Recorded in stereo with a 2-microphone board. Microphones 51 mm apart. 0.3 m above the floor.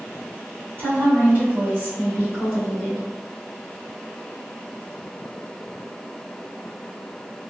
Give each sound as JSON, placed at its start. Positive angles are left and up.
{"t": 0.8, "sound": "a woman speaking", "side_deg": -45, "distance_m": 1.9}